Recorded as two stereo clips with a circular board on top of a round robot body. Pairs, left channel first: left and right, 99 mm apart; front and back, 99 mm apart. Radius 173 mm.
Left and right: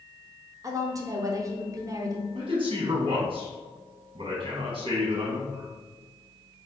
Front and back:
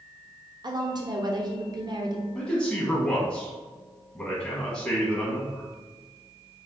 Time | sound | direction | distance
0.6 | a woman speaking | 140° right | 1.1 m
2.4 | a man speaking | 70° right | 1.5 m